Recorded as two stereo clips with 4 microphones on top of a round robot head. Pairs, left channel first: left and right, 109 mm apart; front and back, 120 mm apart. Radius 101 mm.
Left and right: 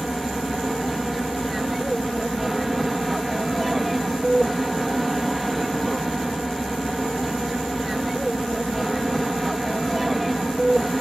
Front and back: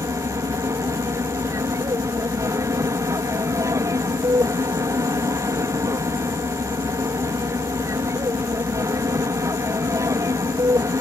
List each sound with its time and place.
0.0 s an aircraft: straight behind